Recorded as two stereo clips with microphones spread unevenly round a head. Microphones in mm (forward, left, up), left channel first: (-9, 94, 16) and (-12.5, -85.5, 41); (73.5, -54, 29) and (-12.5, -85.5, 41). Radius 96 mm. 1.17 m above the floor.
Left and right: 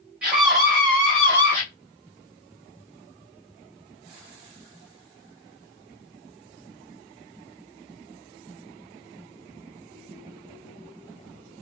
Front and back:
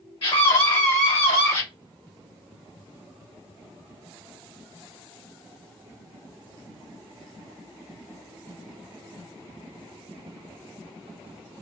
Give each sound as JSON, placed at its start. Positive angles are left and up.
{"t": 0.2, "sound": "a scream", "azimuth_deg": -5, "distance_m": 1.5}